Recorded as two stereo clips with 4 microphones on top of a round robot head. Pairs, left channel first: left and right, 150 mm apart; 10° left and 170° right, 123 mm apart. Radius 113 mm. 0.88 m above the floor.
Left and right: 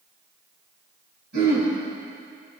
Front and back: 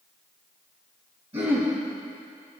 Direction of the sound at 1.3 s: 115° right.